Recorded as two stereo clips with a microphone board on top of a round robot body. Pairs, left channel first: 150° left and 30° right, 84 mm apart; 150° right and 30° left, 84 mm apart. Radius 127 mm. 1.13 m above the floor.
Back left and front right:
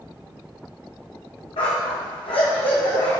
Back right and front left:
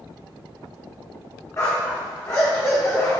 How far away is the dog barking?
About 1.0 m.